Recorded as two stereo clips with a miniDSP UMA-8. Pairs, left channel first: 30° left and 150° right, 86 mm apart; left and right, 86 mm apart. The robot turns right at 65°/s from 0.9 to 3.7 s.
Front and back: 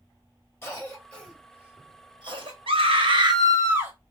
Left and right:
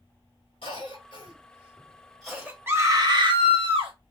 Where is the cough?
90° left, 1.9 m; by 2.6 s 160° right, 1.9 m.